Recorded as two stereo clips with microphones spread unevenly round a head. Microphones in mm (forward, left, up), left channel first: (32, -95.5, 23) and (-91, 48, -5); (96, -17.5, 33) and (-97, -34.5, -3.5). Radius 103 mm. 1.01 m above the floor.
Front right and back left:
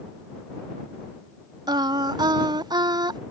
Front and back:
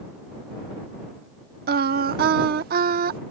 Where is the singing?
165° right.